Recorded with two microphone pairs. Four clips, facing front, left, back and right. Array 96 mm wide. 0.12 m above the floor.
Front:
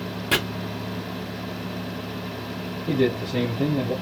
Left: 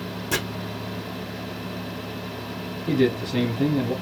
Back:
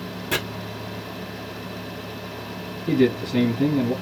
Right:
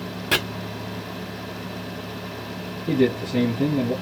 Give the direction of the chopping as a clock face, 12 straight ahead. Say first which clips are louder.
Right 3 dB, front 2 dB; 2 o'clock.